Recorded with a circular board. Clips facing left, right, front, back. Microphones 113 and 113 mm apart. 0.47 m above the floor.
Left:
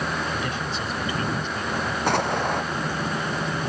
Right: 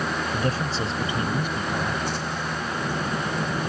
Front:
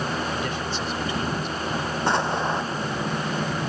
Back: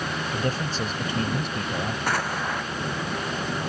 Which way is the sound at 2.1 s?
65° left.